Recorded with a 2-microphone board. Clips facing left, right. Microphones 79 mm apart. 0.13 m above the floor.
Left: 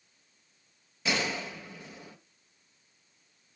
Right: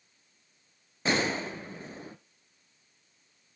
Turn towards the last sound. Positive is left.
turn(degrees=-35)  # may be behind; listen again after turning